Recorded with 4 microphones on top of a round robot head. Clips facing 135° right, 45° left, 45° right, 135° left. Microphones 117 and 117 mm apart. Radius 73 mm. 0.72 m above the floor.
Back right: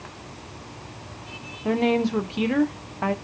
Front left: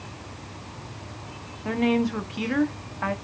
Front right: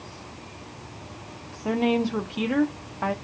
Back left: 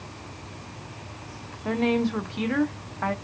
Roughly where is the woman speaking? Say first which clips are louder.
Back right 2 dB, front right 1 dB; right.